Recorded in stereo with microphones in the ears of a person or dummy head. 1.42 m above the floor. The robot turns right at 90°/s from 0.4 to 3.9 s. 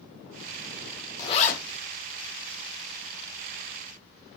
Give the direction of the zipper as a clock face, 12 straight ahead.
11 o'clock.